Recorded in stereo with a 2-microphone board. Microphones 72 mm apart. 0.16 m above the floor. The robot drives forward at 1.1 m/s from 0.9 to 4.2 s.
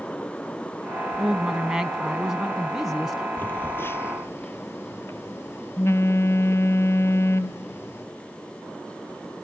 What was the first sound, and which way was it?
A woman speaking, 5° right (ahead or behind).